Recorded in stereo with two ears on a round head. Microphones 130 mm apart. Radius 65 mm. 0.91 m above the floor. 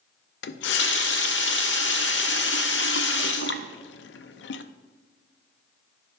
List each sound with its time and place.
0.4 s a running tap: 85° left, 0.6 m